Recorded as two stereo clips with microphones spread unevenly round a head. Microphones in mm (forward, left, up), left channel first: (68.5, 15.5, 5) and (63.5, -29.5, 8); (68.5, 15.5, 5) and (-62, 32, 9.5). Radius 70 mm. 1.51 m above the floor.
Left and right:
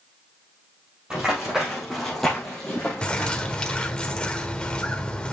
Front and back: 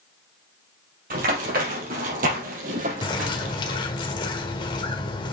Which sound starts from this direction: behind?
Running footsteps, at 1.1 s.